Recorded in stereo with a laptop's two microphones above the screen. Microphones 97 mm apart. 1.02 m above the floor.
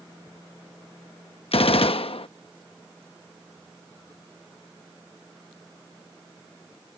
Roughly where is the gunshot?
Left.